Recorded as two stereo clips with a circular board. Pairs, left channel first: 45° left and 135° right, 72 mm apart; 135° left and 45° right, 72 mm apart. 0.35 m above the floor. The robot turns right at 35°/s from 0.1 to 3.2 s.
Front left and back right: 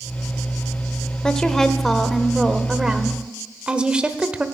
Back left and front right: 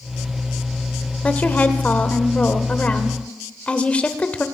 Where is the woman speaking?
105° left, 1.0 m; by 4.5 s 170° left, 1.0 m.